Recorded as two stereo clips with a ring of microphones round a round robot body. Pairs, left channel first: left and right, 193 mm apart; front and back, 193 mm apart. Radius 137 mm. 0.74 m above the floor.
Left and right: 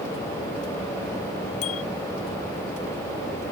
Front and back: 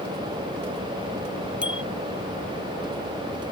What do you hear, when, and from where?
1.6 s a bicycle bell: 95° left